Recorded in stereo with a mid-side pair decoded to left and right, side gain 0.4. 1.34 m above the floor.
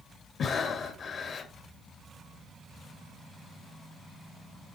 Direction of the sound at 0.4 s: 60° left.